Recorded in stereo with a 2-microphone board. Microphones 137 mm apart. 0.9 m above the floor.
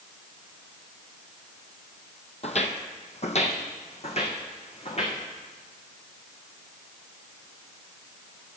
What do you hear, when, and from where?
2.4 s footsteps: 50° left (ahead or behind), 1.4 m